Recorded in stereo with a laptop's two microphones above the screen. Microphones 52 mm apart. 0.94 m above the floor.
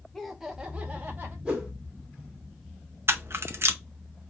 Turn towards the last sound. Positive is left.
turn(degrees=-50)  # may be behind; listen again after turning